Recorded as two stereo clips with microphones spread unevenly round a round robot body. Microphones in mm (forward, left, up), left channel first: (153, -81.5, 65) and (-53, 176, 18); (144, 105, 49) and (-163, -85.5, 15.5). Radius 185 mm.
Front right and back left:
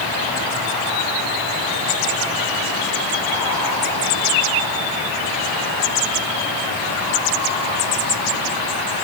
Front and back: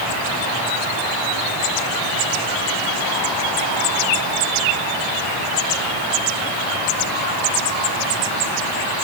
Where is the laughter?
I don't hear laughter.